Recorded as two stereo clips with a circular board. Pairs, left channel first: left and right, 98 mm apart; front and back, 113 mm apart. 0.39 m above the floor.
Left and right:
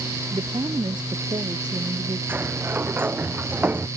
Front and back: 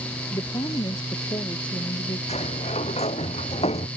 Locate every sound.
0.3 s a woman speaking: 50° right; by 2.2 s 45° right
2.3 s a sliding door: 20° right